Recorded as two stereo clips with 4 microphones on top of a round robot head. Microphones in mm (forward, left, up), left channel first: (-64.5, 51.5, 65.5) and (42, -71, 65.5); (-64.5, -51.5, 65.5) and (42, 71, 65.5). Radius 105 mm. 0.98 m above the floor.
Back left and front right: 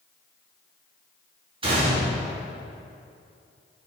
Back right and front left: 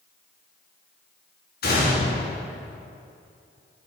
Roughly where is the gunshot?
Right.